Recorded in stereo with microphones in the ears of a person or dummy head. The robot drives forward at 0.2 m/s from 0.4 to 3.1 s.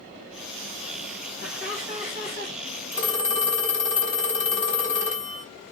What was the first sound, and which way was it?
Laughter, 60° left (ahead or behind).